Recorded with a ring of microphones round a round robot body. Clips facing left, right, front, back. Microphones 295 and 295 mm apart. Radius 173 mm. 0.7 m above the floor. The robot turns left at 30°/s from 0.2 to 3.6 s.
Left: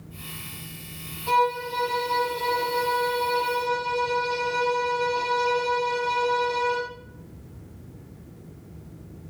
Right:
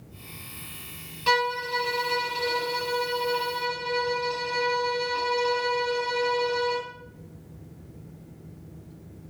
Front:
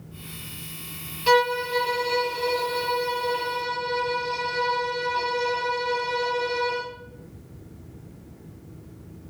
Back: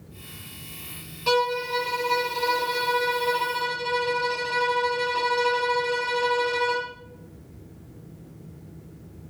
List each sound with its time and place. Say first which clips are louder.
1.3 s a violin: left 2 dB, front 3 dB; 90° right, 3.5 m; by 6.9 s 160° right, 3.5 m